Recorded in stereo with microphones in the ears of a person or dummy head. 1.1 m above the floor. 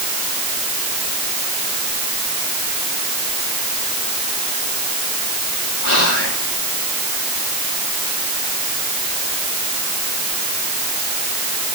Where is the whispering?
65° left (ahead or behind), 2.0 m.